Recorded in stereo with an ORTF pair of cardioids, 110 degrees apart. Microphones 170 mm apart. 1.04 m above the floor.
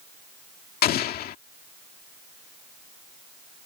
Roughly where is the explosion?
Ahead left.